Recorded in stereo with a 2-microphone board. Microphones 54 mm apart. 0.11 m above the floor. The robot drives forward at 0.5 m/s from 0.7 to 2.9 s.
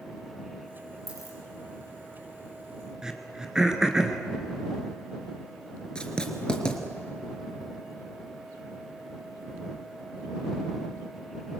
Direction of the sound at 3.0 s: 10° right (ahead or behind).